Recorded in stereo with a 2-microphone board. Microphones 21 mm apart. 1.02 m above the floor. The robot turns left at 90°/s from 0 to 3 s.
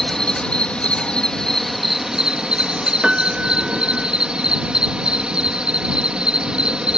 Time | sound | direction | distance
0.0 | an insect | 165° left | ?
3.0 | a piano | 50° right (ahead or behind) | ?